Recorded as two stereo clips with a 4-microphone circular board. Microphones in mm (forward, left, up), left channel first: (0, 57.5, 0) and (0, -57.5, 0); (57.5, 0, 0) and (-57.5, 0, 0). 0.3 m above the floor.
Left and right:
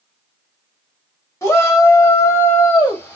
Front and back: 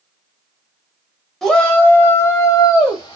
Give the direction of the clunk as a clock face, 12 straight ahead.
No clunk in this recording.